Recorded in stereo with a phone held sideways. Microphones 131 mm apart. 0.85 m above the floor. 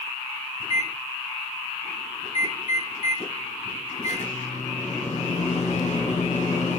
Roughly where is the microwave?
Left.